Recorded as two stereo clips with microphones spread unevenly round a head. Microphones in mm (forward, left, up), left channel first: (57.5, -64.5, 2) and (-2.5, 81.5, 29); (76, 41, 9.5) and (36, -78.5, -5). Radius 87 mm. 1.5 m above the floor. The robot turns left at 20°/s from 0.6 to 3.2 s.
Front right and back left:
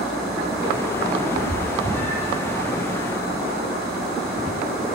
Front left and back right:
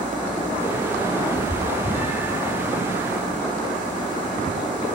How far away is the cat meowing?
About 5.5 m.